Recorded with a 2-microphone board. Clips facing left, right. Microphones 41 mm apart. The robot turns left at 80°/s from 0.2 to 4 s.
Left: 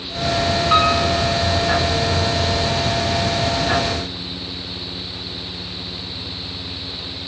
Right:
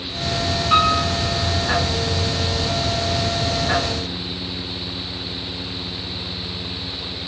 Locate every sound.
0.7 s a piano: 5° left (ahead or behind), 7.5 m; by 1.0 s 30° left (ahead or behind), 7.5 m